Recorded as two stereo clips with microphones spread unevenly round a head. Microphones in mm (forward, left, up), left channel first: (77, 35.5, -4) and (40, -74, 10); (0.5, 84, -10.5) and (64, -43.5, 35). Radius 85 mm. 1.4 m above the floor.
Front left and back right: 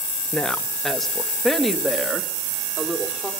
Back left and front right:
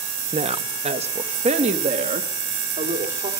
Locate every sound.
0.3 s a woman speaking: 10° right, 1.3 m; by 3.3 s 20° right, 4.5 m